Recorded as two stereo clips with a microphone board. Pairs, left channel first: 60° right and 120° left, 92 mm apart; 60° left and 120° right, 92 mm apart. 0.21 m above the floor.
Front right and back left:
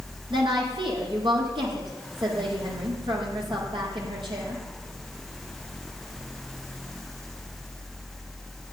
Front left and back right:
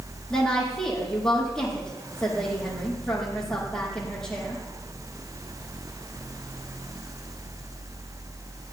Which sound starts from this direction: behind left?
A woman speaking, at 0.3 s.